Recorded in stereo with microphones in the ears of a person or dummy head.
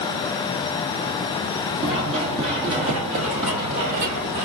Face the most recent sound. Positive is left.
turn(degrees=-40)  # may be behind; listen again after turning